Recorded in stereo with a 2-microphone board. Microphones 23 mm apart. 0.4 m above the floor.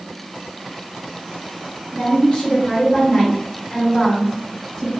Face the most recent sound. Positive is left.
turn(degrees=10)  # may be behind; listen again after turning